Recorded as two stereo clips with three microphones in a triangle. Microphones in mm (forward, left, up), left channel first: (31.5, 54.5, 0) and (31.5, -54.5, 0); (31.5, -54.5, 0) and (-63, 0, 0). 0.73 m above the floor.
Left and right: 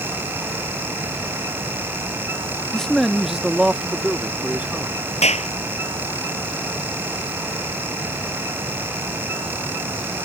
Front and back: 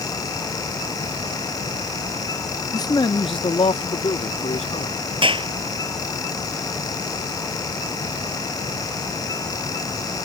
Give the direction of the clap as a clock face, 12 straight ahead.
8 o'clock.